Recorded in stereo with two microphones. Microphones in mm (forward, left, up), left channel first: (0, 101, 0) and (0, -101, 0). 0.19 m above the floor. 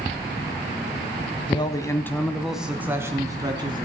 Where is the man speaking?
25° left (ahead or behind), 1.2 m; by 3.9 s 25° right (ahead or behind), 1.7 m.